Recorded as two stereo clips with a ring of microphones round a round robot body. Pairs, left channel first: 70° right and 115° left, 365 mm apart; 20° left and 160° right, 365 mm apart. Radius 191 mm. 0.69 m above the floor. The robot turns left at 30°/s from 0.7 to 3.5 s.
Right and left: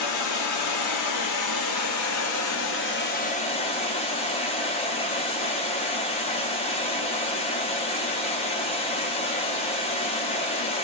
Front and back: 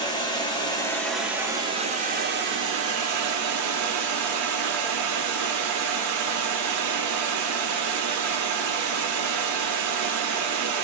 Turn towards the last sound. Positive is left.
turn(degrees=-135)